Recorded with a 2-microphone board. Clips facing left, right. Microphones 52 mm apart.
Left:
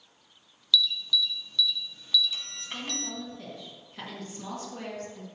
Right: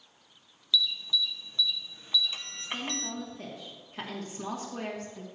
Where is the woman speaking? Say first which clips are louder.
Right 2 dB; 15° right (ahead or behind), 1.5 m.